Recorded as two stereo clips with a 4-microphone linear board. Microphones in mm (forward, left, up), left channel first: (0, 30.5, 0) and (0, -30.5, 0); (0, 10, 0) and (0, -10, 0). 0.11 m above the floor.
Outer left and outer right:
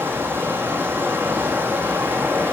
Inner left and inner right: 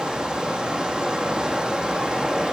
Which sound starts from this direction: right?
Running water, at 0.0 s.